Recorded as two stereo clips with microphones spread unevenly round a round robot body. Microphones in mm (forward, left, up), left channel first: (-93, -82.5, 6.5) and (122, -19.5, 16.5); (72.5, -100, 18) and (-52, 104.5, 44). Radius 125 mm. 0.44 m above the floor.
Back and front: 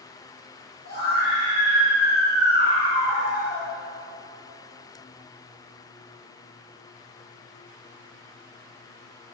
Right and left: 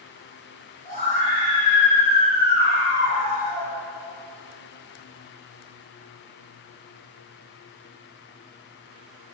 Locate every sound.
0.8 s a scream: 120° right, 3.5 m; by 3.7 s 90° right, 4 m